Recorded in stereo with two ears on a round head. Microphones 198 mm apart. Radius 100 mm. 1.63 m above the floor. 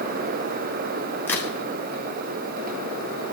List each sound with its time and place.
1.3 s a crack: 10° left (ahead or behind), 1.6 m